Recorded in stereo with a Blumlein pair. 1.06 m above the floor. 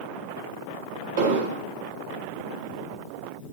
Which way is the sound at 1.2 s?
55° right.